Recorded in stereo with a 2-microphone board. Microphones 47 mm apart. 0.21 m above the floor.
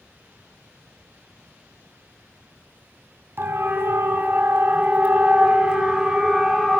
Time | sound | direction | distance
3.4 | a siren | 50° right (ahead or behind) | 3 m